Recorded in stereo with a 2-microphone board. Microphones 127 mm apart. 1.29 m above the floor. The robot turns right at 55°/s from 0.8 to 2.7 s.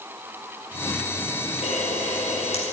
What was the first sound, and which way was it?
A camera shutter, 70° left.